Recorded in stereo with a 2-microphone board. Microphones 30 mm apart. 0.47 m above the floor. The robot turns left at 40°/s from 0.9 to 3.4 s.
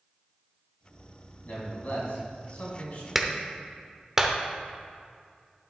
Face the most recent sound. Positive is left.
turn(degrees=-20)  # may be behind; listen again after turning